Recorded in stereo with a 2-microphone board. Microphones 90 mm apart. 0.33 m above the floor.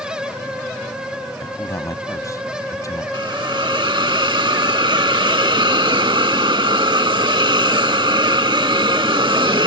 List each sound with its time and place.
1.4 s a man speaking: 40° left (ahead or behind)
3.1 s a hiss: 65° right (ahead or behind)